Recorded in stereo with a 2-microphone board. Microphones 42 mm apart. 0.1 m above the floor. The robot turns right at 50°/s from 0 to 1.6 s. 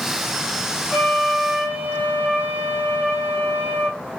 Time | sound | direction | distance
0.9 | a flute | 165° left | 1.9 m